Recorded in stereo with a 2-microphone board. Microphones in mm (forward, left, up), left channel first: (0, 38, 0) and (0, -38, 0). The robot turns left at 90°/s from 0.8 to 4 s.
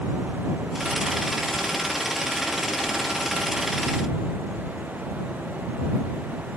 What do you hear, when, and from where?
Only background noise.